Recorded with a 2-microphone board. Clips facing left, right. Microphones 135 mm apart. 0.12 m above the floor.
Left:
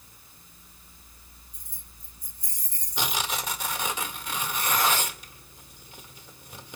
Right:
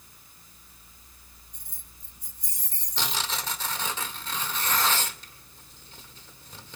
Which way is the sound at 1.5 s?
75° right (ahead or behind).